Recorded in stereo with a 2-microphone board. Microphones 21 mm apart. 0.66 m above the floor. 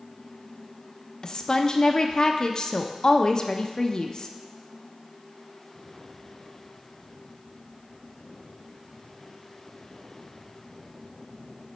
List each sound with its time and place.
1.2 s a woman speaking: 35° left (ahead or behind), 0.6 m